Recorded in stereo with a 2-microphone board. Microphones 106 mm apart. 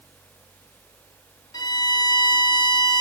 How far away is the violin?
About 0.8 m.